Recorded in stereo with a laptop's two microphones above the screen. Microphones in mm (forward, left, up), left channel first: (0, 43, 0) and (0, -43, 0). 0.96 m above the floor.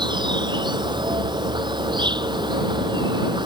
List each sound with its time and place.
0.0 s an insect: 65° right (ahead or behind)